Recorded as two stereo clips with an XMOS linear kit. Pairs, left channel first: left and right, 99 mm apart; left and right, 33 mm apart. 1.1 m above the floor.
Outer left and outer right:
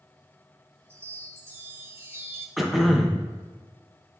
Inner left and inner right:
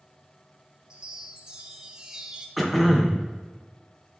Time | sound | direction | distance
0.9 | a chime | 25° right (ahead or behind) | 0.9 m
2.6 | throat clearing | centre (ahead or behind) | 1.1 m